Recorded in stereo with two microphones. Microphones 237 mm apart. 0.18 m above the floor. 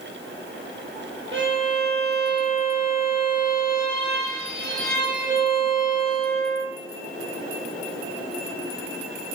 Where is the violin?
25° right (ahead or behind), 1.6 m.